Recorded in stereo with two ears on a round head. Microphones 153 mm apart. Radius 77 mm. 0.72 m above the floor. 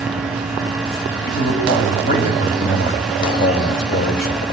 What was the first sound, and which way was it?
A man speaking, 55° left (ahead or behind).